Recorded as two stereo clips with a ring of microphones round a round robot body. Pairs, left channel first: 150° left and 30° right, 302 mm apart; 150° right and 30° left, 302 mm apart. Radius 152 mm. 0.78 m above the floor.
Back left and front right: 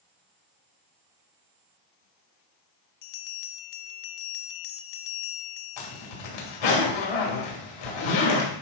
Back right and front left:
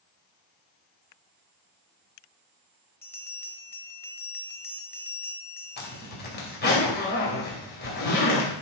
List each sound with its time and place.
3.0 s a bell: 130° left, 0.6 m
5.8 s a zipper: 150° left, 2.5 m